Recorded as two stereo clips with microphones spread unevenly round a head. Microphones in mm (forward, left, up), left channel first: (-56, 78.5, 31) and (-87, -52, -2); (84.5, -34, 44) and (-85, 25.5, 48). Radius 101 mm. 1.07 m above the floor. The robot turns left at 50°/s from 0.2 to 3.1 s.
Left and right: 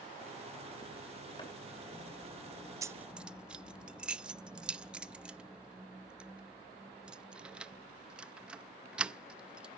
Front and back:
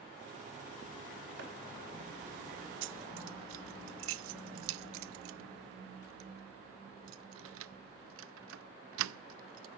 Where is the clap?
130° left, 5.5 m; by 1.5 s 125° left, 5.5 m.